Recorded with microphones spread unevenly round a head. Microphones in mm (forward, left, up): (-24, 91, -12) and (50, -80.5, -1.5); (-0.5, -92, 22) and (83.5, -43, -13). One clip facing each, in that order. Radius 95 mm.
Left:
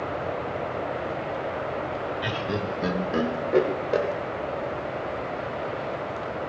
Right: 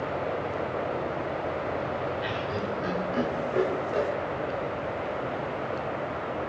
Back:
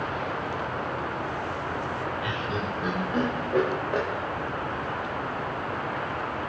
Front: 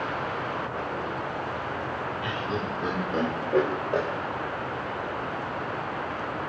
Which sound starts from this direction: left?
Laughter, at 2.2 s.